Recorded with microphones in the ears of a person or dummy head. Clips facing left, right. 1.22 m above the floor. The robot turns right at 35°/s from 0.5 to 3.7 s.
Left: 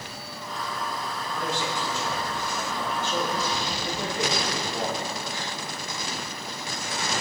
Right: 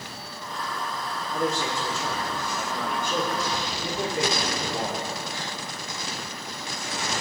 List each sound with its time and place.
1.3 s a man speaking: 135° right, 4 m; by 5.0 s 55° right, 4 m